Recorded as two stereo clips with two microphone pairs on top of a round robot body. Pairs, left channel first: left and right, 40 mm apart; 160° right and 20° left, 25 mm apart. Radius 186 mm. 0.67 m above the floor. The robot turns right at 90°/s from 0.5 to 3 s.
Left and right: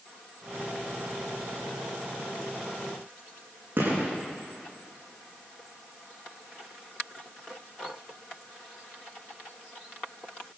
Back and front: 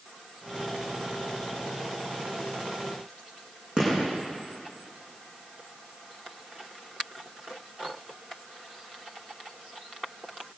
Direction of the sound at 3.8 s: 40° right.